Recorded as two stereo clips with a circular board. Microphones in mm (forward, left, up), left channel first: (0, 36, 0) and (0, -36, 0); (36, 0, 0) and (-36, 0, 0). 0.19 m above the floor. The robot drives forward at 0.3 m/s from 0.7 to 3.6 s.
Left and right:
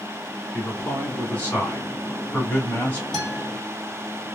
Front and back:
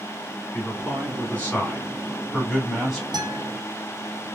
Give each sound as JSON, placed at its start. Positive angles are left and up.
{"t": 0.5, "sound": "a man speaking", "azimuth_deg": 40, "distance_m": 1.7}
{"t": 3.1, "sound": "a guitar", "azimuth_deg": 175, "distance_m": 1.6}